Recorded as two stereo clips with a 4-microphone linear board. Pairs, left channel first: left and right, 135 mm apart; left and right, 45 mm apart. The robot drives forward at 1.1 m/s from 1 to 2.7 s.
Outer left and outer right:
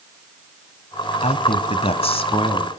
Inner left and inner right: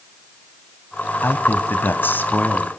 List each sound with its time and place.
1.2 s a man speaking: 55° left (ahead or behind), 1.8 m; by 2.7 s 40° left (ahead or behind), 2.5 m